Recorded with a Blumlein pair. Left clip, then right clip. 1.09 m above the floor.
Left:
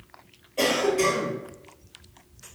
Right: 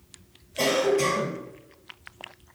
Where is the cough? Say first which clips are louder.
Even; 10° left, 1.7 m.